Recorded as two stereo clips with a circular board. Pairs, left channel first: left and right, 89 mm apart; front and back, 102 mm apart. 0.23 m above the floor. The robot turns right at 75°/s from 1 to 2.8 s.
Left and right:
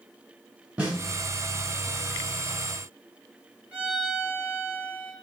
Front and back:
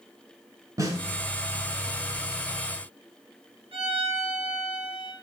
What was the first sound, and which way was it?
A snare drum, 160° right.